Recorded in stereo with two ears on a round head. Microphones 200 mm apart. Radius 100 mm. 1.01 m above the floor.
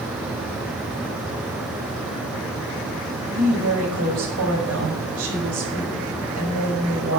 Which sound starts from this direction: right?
A woman speaking, at 3.3 s.